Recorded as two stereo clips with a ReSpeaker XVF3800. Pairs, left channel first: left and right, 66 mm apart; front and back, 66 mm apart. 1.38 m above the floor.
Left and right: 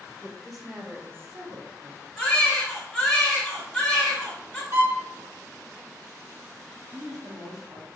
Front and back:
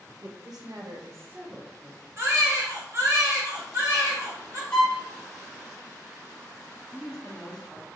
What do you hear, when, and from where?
0.2 s a woman speaking: 170° left, 1.0 m; by 2.1 s 80° right, 0.9 m
2.2 s a baby crying: 170° left, 1.3 m
4.7 s a violin: 65° right, 1.9 m
6.9 s a woman speaking: 80° right, 0.9 m